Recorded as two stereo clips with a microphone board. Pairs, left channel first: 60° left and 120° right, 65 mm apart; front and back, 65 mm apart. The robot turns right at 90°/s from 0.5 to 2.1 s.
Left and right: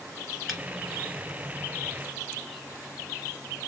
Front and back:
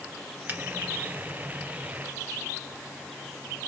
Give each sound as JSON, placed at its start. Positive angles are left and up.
{"t": 0.5, "sound": "a finger snap", "azimuth_deg": 150, "distance_m": 1.6}